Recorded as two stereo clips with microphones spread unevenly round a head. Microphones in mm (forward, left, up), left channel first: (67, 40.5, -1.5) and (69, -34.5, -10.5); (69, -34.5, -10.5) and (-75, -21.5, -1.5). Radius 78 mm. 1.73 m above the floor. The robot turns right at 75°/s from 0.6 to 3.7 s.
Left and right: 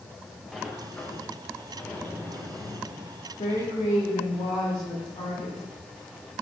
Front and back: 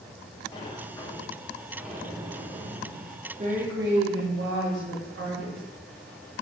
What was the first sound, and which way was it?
A sliding door, 15° left.